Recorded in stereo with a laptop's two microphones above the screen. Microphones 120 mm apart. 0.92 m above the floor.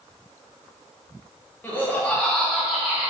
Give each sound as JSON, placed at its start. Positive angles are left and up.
{"t": 1.6, "sound": "laughter", "side_deg": 15, "distance_m": 0.9}